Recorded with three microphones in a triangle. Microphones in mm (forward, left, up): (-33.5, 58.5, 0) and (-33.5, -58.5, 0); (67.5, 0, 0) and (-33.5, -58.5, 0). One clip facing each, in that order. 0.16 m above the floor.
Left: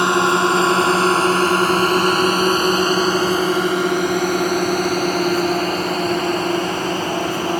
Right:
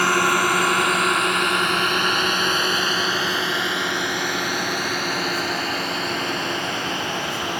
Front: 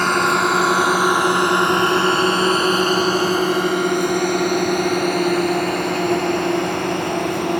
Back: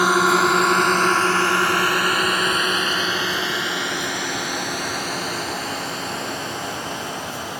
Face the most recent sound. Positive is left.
turn(degrees=45)